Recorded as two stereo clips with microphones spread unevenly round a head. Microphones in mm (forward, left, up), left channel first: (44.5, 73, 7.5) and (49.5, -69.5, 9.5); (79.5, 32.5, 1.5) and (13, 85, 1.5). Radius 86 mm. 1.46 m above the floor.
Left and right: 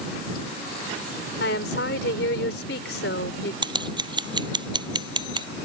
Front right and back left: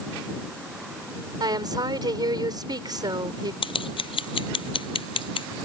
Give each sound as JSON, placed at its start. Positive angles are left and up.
{"t": 1.4, "sound": "a woman speaking", "azimuth_deg": 105}
{"t": 3.6, "sound": "scissors", "azimuth_deg": -30}